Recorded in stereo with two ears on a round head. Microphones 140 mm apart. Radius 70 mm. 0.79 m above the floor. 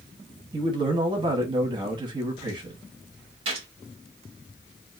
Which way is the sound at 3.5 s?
35° right (ahead or behind).